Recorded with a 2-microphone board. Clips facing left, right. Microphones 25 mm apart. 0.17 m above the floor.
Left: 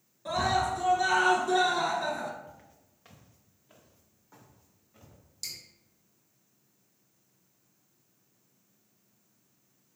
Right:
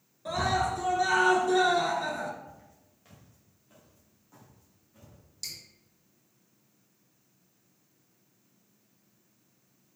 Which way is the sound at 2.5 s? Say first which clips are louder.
Right 1 dB; 30° left (ahead or behind).